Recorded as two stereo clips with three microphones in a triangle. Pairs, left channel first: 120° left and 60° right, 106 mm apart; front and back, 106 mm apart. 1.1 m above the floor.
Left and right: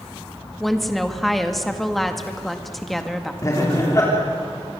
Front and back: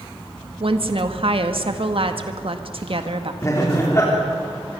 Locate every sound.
0.6 s a woman speaking: 150° right, 1.8 m
3.4 s laughter: 60° left, 3.5 m